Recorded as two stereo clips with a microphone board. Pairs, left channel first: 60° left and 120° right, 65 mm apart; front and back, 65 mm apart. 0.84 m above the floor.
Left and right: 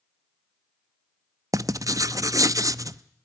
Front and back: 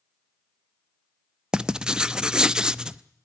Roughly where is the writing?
Right.